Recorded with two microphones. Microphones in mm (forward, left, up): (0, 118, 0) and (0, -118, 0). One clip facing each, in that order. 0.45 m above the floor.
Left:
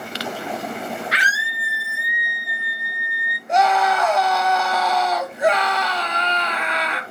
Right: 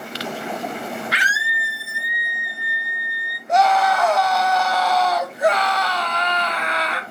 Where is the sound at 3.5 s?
Centre (ahead or behind), 1.5 m.